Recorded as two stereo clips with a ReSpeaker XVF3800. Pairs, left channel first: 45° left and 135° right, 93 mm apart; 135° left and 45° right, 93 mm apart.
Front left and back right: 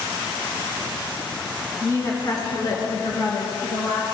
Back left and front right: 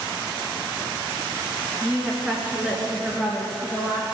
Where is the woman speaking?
15° left, 1.4 m; by 4.2 s 45° left, 3.5 m.